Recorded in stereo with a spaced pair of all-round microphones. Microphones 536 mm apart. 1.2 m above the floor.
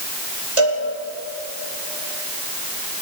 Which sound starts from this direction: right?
A cowbell, at 0.6 s.